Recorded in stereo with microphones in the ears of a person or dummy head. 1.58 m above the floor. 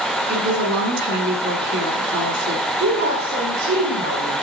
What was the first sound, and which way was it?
A woman speaking, 65° right (ahead or behind).